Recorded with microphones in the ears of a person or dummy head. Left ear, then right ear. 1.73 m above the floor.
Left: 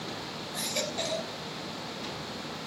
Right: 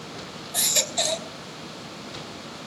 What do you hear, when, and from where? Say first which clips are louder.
0.5 s a baby crying: right 9 dB; 20° right (ahead or behind), 1.6 m